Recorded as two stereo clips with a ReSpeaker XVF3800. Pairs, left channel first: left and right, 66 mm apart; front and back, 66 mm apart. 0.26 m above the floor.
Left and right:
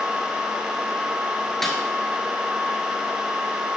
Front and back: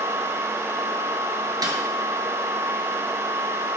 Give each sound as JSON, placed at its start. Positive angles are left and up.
{"t": 1.6, "sound": "a snare drum", "azimuth_deg": 175, "distance_m": 1.5}